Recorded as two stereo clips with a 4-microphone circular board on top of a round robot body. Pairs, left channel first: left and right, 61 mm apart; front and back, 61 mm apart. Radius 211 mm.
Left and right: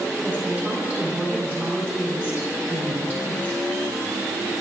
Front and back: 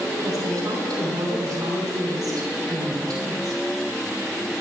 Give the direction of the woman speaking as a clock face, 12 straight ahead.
5 o'clock.